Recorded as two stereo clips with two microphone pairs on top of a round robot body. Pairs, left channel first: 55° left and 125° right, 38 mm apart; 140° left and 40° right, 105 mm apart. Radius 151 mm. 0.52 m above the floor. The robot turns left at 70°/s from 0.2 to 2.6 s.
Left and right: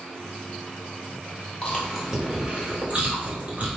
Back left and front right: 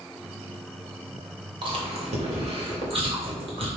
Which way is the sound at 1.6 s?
Straight ahead.